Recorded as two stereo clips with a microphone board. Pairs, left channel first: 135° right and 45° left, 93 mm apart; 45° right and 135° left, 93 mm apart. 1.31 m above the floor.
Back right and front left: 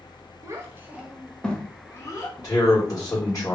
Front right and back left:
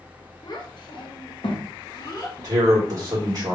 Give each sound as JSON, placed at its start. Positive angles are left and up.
{"t": 0.4, "sound": "a child speaking", "azimuth_deg": -10, "distance_m": 0.8}
{"t": 2.4, "sound": "a man speaking", "azimuth_deg": 175, "distance_m": 1.2}